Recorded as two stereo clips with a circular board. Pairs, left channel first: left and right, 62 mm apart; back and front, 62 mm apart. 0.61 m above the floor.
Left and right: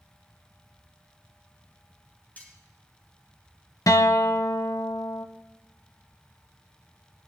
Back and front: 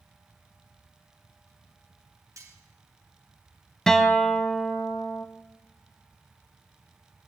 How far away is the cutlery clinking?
About 2.5 m.